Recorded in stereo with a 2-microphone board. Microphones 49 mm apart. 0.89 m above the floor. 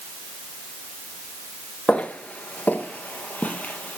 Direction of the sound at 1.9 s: 25° left (ahead or behind).